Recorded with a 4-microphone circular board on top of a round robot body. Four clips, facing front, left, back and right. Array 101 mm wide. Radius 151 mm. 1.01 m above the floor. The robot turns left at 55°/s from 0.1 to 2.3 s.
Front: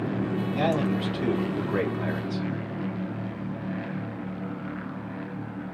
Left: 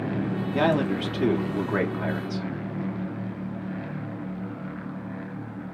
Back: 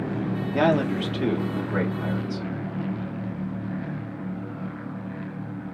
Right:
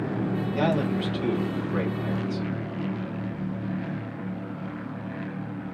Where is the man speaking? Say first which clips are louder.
Left 3 dB, back 5 dB; 155° left, 2 m; by 2.5 s 60° left, 2 m.